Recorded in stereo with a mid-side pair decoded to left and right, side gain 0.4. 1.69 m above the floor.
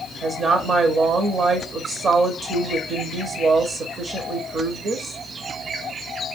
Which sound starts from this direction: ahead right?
A woman speaking, at 0.2 s.